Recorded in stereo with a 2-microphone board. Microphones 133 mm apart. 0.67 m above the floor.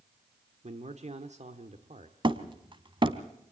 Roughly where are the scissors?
I don't hear scissors.